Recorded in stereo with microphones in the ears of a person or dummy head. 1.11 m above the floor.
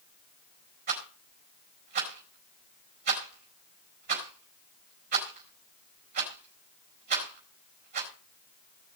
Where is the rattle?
50° right (ahead or behind), 4.5 m.